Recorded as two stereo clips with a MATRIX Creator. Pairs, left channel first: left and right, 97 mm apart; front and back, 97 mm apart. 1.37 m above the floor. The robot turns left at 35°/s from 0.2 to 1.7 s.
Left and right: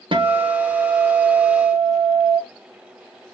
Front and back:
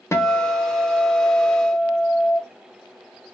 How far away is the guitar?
About 0.9 m.